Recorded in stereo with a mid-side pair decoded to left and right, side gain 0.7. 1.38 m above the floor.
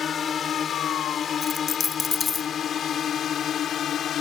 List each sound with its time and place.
0.0 s a drone: 30° left; by 4.2 s 40° left
1.4 s a dropped coin: 25° left